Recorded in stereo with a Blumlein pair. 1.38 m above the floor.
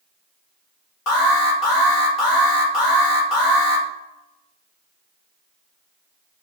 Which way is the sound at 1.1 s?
40° left.